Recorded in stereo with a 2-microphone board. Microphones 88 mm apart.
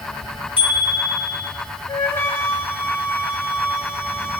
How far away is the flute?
About 2.5 m.